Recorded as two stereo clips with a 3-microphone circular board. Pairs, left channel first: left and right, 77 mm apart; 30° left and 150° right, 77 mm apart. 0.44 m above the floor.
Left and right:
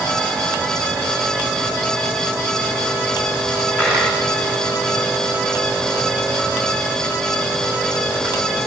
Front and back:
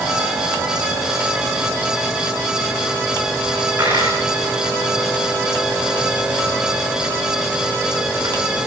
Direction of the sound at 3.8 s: 150° left.